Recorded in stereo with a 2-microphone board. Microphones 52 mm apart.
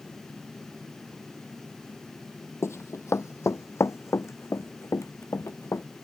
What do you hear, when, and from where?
2.6 s running footsteps: 60° left (ahead or behind)